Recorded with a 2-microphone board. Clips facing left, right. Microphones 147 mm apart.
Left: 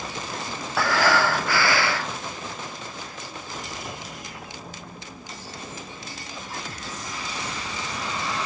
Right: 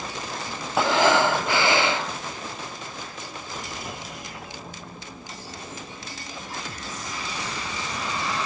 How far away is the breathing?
About 1.2 m.